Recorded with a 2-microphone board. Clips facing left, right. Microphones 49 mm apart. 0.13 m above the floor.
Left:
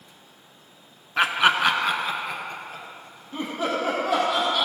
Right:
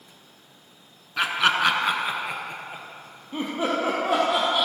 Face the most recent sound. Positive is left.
turn(degrees=-25)  # may be behind; listen again after turning